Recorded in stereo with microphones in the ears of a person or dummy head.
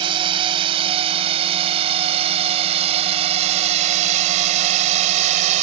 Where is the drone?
35° right (ahead or behind); by 5.6 s 40° right (ahead or behind).